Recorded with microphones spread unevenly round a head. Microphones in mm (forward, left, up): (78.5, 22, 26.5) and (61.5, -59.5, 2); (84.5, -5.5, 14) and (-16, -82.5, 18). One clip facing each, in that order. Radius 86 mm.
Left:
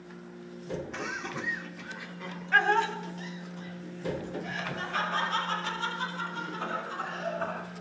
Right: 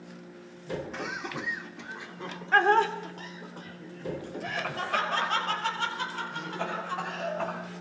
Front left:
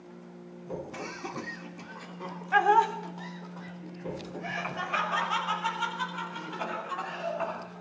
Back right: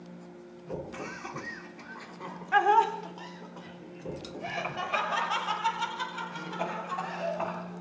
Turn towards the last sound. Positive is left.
turn(degrees=-95)